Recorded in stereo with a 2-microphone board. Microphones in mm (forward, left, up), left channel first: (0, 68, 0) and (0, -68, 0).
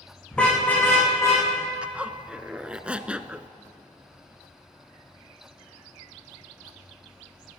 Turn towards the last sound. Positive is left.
turn(degrees=-10)  # may be behind; listen again after turning